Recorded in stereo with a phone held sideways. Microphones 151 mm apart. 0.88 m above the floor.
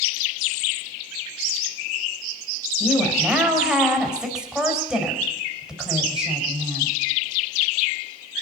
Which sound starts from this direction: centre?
A woman speaking, at 2.8 s.